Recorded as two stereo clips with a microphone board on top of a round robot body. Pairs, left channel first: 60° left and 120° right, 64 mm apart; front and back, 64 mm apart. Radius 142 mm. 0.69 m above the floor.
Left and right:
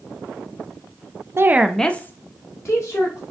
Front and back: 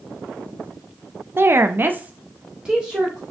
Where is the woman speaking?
145° right, 0.8 m; by 3.2 s 100° left, 2.5 m.